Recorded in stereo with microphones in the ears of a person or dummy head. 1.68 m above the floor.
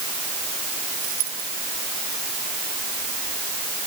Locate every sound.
1.0 s a dropped coin: 85° right